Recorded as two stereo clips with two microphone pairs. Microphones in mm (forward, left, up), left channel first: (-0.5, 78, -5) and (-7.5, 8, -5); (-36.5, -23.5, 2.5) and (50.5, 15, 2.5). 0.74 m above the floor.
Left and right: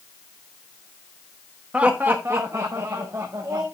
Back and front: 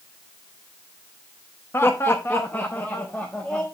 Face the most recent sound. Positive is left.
turn(degrees=-85)